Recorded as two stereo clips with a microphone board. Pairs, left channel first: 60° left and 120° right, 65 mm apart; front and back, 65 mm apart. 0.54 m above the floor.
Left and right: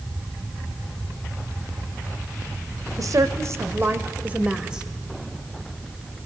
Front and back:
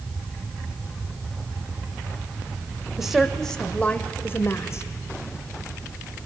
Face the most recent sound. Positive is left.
turn(degrees=-40)